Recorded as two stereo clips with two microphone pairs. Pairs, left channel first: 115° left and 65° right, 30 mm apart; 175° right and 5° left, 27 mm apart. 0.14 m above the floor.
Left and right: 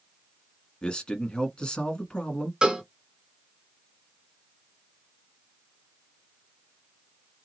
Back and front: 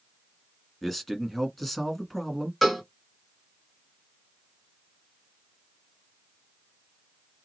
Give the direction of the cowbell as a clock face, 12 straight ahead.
3 o'clock.